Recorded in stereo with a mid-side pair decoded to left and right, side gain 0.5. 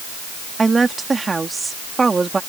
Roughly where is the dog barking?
No dog barking in this recording.